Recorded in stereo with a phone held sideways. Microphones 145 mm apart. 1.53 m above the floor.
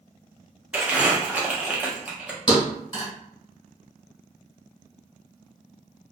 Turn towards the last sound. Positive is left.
turn(degrees=35)  # may be behind; listen again after turning